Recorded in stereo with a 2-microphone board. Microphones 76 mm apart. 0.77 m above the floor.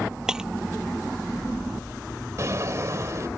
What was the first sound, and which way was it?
Breaking glass, 10° right (ahead or behind).